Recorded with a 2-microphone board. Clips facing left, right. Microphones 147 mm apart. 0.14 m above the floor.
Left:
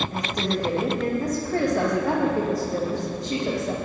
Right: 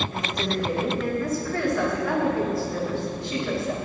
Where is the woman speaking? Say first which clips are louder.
Left 1 dB; 40° left (ahead or behind), 7 m.